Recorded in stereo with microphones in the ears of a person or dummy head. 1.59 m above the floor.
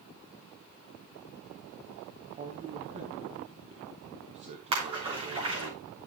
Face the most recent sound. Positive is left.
turn(degrees=-30)  # may be behind; listen again after turning